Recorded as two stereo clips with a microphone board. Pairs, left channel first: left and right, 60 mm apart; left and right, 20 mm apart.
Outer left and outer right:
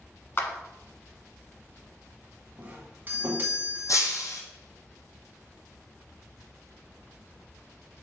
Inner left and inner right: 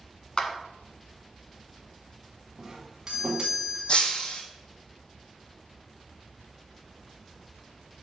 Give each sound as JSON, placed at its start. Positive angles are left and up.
{"t": 0.4, "sound": "a clap", "side_deg": 45, "distance_m": 1.1}
{"t": 2.6, "sound": "a doorbell", "side_deg": -30, "distance_m": 1.7}
{"t": 3.9, "sound": "breaking glass", "side_deg": 60, "distance_m": 1.5}